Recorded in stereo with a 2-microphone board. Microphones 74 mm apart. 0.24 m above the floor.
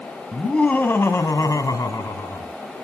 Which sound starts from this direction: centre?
Laughter, at 0.3 s.